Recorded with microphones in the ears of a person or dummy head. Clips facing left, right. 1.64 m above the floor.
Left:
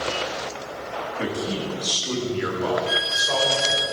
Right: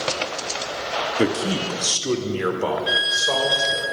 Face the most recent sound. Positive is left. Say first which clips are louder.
# right 1 dB
turn(degrees=-20)  # may be behind; listen again after turning